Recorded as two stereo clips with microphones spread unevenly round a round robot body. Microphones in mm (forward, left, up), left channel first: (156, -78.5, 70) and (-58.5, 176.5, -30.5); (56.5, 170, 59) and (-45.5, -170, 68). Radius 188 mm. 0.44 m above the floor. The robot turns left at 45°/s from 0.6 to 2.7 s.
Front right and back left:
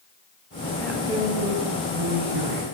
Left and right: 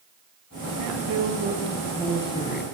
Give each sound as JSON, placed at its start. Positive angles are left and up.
{"t": 0.8, "sound": "a woman speaking", "azimuth_deg": -140, "distance_m": 4.5}